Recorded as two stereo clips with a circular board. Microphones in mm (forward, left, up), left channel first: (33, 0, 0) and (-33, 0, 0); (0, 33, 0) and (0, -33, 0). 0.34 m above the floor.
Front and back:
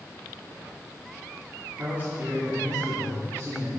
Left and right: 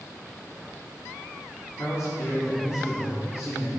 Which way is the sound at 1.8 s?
115° left.